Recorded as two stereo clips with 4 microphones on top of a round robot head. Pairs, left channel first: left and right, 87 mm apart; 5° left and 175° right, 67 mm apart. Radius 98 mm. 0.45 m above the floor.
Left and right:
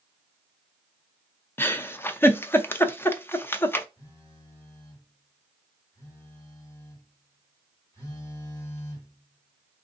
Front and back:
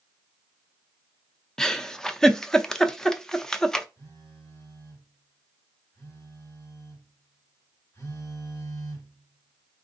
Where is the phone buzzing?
40° left, 2 m.